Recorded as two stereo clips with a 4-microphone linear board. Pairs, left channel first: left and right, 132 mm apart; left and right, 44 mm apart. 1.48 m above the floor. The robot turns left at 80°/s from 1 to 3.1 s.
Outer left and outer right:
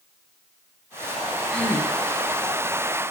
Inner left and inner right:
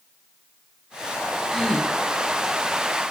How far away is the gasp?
About 5.5 m.